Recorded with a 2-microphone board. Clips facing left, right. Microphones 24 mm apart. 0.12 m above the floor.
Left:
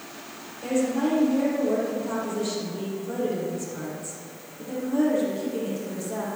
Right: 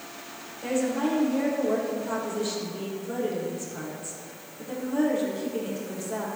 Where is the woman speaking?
5° right (ahead or behind), 3.5 m.